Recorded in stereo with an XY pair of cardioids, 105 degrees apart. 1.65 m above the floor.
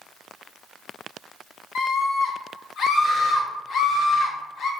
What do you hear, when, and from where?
1.8 s a scream: 65° left, 0.7 m